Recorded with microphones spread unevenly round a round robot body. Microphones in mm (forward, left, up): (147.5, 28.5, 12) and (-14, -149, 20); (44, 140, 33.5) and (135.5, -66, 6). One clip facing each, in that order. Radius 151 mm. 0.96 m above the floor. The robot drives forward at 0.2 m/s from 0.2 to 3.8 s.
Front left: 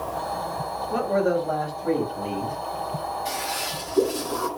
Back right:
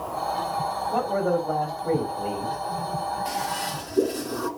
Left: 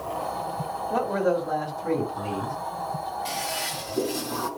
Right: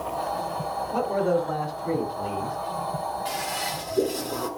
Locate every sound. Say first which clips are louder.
0.9 s a man speaking: front left 2 dB, even; 130° left, 5.5 m; by 2.6 s 135° left, 6 m
3.2 s a toilet flushing: even, right 2 dB; 140° left, 8 m